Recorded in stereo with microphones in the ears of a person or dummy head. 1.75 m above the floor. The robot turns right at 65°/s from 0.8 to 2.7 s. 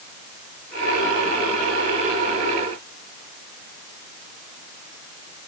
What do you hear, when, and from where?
Only background noise.